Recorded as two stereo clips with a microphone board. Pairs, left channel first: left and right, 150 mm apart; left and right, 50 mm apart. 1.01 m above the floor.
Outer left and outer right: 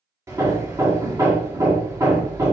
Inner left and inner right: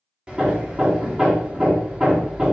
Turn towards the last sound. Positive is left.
turn(degrees=-20)  # may be behind; listen again after turning